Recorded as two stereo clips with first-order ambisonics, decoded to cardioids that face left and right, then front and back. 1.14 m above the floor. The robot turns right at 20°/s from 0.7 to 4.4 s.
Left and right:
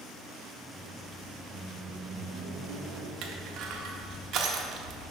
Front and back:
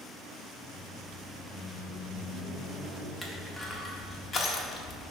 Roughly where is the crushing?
Right.